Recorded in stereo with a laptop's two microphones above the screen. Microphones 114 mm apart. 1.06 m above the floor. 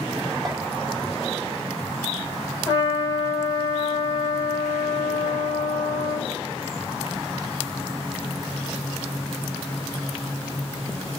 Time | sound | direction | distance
0.5 | a clink | centre (ahead or behind) | 1.6 m
2.7 | a trumpet | 25° left (ahead or behind) | 2.5 m